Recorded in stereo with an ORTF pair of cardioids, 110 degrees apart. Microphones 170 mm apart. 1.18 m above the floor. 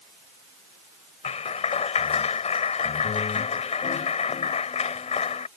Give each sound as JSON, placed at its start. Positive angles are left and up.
{"t": 1.2, "sound": "a clap", "azimuth_deg": 40}